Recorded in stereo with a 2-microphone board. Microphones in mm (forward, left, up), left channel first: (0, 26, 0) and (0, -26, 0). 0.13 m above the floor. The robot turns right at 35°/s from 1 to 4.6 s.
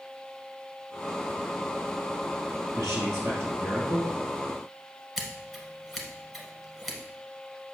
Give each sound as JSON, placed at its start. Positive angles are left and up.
{"t": 2.7, "sound": "a man speaking", "azimuth_deg": -95, "distance_m": 3.0}
{"t": 5.2, "sound": "scissors", "side_deg": 5, "distance_m": 1.4}